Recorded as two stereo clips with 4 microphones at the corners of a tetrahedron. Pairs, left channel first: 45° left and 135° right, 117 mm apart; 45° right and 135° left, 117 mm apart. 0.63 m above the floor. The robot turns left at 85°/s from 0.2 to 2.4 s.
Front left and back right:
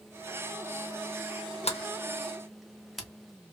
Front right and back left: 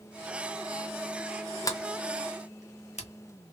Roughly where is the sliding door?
Ahead.